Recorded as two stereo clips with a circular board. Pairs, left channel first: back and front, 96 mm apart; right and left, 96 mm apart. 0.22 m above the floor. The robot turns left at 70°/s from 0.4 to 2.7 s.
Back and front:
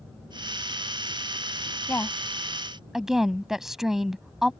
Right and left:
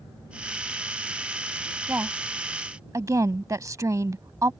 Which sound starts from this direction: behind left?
A woman speaking, at 1.9 s.